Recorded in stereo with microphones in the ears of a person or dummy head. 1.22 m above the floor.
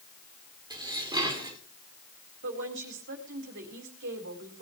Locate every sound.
0.7 s dishes clattering: 20° right (ahead or behind), 2.5 m
2.4 s a woman speaking: 65° right (ahead or behind), 4 m